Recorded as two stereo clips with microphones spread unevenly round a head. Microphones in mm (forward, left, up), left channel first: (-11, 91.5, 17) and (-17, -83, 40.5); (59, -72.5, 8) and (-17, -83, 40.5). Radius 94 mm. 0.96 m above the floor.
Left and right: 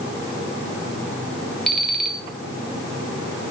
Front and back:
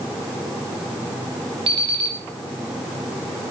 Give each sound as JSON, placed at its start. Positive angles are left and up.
{"t": 1.7, "sound": "an alarm clock", "azimuth_deg": 180, "distance_m": 2.5}